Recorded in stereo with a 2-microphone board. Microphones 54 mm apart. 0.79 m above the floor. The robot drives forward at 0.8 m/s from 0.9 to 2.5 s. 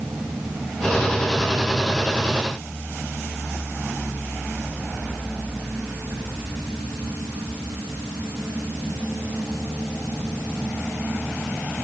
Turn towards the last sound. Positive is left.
No sound to turn to.